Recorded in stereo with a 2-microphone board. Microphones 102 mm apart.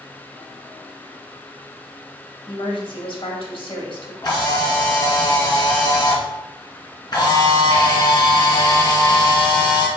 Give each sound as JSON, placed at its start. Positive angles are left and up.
{"t": 2.5, "sound": "a woman speaking", "side_deg": 60, "distance_m": 1.8}
{"t": 4.2, "sound": "a camera shutter", "side_deg": 45, "distance_m": 2.5}